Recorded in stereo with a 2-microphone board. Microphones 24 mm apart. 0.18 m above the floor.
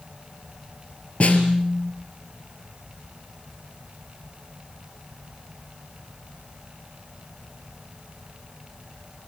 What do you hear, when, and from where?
1.2 s a snare drum: 60° left (ahead or behind), 4 m